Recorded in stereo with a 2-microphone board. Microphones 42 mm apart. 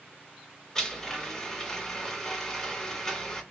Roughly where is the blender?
Centre.